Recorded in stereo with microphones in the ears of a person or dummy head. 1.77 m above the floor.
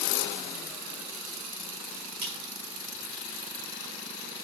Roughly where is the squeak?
Right.